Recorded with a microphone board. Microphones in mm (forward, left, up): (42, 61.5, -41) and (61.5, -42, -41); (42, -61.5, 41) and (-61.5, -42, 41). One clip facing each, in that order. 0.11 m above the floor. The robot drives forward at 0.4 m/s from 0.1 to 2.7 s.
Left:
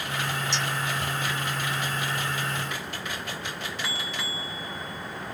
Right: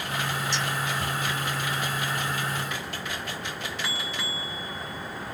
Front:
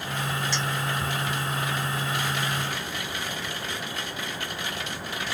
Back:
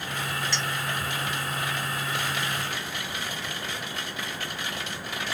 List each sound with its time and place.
0.5 s a clink: 70° right, 1.4 m